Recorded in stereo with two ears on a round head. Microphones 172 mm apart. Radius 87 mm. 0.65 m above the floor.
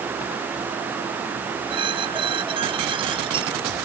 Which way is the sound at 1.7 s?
30° right (ahead or behind).